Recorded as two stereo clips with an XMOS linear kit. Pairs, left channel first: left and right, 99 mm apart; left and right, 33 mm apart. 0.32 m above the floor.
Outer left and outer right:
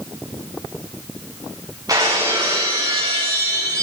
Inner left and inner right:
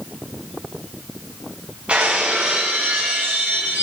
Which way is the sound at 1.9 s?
40° right (ahead or behind).